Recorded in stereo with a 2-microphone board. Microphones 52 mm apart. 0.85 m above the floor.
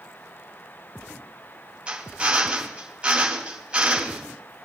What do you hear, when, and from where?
1.9 s a drill: 20° right (ahead or behind), 2.5 m